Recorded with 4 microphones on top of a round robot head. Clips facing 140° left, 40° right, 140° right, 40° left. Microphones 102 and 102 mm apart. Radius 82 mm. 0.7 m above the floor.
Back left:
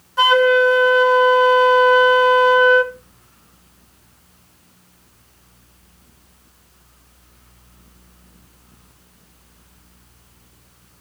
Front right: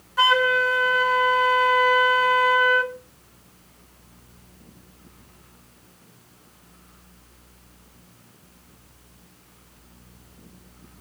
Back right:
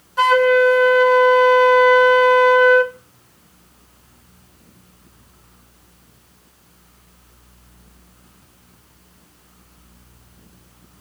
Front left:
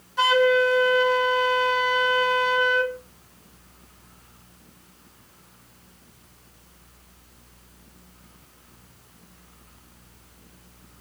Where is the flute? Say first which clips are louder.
Back left 7 dB, back right 6 dB; 160° right, 1.3 m.